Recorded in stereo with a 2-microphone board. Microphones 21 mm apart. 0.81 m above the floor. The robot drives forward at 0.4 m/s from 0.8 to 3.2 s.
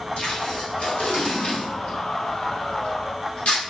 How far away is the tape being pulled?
About 1.3 m.